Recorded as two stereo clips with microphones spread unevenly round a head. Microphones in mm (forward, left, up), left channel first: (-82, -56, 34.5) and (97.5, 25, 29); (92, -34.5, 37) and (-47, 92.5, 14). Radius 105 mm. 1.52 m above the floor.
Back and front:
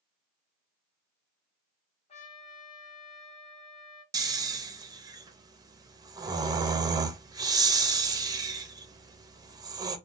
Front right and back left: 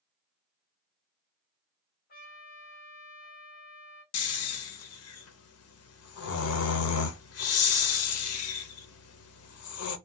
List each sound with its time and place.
2.1 s a trumpet: 95° right, 1.5 m
4.1 s snoring: 50° right, 0.6 m